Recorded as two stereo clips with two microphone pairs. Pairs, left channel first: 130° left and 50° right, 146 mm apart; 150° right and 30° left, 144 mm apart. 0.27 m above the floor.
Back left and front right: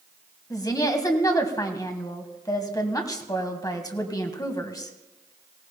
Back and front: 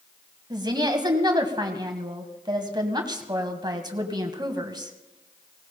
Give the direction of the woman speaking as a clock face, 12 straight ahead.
9 o'clock.